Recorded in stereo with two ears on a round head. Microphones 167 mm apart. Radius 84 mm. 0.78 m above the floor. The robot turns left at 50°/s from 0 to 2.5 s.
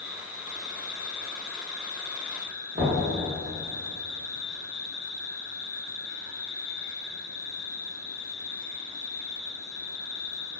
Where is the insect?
Straight behind, 0.8 m; by 10.6 s 55° left, 0.8 m.